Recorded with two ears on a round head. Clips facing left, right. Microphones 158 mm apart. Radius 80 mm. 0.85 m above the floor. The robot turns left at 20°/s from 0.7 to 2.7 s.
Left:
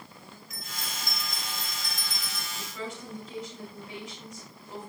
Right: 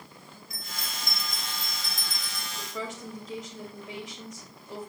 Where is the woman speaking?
65° right (ahead or behind), 2 m.